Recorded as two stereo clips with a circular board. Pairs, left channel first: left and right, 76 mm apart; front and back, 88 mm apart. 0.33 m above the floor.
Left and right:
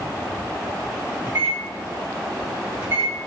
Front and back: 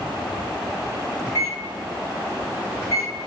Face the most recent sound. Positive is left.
turn(degrees=-40)